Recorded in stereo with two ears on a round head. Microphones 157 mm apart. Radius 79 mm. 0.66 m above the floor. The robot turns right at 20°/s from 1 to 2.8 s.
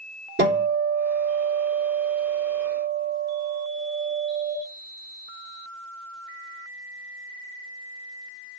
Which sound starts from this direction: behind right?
A guitar, at 0.4 s.